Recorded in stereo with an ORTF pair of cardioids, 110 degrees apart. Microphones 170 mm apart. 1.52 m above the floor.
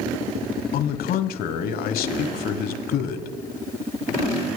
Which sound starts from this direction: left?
A man speaking, at 0.7 s.